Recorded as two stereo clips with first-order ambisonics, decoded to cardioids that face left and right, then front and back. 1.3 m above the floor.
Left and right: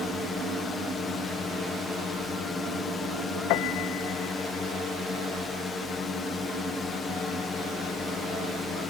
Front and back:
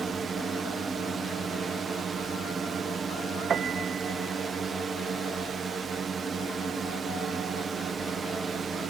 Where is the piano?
115° left.